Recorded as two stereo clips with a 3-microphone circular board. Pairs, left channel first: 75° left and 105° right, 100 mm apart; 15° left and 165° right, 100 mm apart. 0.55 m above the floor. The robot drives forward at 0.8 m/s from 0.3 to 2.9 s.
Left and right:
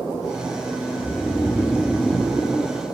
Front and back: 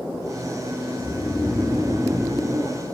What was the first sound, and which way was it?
Snoring, 15° left.